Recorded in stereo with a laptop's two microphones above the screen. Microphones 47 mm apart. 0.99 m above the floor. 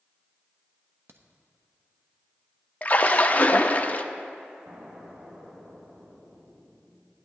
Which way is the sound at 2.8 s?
30° left (ahead or behind).